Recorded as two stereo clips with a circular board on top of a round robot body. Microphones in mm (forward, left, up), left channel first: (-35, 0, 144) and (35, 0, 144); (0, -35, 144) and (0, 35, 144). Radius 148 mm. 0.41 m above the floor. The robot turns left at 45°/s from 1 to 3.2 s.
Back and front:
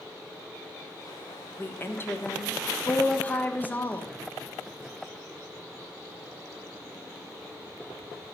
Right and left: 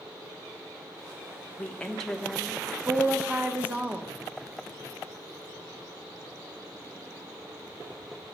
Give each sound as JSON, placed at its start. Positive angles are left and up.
{"t": 1.6, "sound": "a woman speaking", "azimuth_deg": -145, "distance_m": 1.5}